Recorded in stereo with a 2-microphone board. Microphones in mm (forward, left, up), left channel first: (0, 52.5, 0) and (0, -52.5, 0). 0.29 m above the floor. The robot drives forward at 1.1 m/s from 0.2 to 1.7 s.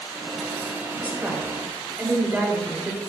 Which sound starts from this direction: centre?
A woman speaking, at 1.0 s.